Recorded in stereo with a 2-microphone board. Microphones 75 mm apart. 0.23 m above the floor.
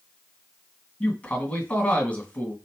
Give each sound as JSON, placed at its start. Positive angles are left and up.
{"t": 1.0, "sound": "a man speaking", "side_deg": 20, "distance_m": 1.7}